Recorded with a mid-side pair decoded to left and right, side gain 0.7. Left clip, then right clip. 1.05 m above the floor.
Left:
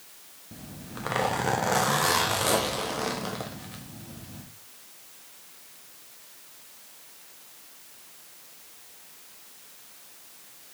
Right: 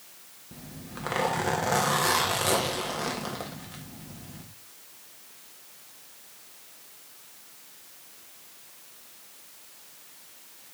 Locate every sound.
0.5 s a zipper: 5° left, 1.7 m